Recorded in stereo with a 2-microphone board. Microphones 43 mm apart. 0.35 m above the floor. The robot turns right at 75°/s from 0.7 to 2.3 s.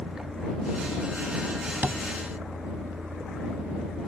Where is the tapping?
45° right (ahead or behind); by 2.0 s 65° right (ahead or behind).